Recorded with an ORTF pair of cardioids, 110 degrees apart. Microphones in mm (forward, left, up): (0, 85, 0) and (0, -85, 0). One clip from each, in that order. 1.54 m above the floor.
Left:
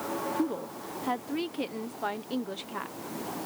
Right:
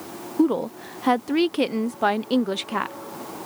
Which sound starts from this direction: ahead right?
A woman speaking, at 0.4 s.